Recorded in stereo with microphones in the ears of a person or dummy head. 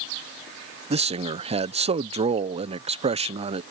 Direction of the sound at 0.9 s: 25° right (ahead or behind).